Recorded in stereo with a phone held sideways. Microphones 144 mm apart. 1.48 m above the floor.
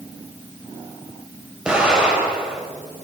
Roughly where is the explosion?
Centre.